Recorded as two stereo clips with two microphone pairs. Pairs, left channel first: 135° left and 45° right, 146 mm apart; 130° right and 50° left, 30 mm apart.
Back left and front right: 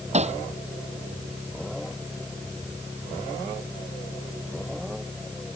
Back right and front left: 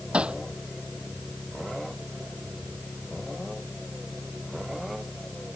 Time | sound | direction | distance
0.1 | hammering | straight ahead | ?